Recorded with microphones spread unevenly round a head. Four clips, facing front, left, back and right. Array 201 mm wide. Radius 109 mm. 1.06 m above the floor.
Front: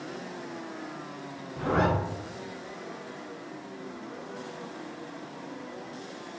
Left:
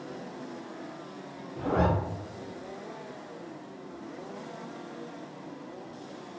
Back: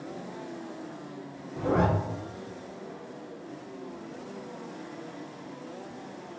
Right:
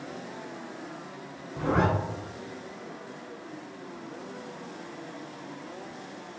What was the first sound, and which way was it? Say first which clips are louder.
A zipper: right 1 dB, back 1 dB; 85° right.